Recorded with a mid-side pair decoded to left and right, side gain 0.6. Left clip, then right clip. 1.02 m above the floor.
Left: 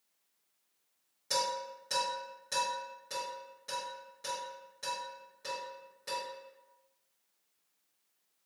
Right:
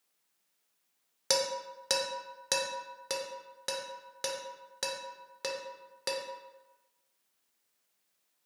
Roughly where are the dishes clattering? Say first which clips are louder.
Right 2 dB; right.